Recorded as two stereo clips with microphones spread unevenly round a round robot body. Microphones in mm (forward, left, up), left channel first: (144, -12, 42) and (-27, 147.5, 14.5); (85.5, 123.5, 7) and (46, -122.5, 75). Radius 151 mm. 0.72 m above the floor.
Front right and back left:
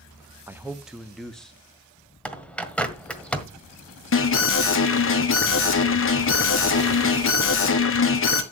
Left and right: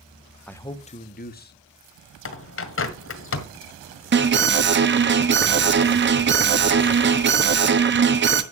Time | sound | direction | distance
0.5 | a man speaking | 100° left | 0.9 m
2.2 | a bird | 40° left | 1.7 m
4.1 | an alarm | 50° right | 1.5 m